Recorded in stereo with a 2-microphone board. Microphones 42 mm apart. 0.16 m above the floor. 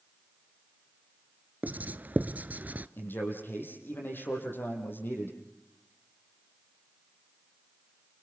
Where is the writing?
45° right (ahead or behind), 1.0 m.